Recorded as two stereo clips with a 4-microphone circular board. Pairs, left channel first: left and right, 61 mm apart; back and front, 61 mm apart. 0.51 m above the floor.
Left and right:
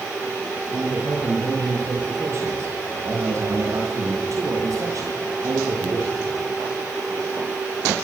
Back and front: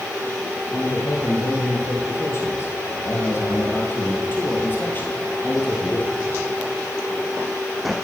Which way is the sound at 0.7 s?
140° right.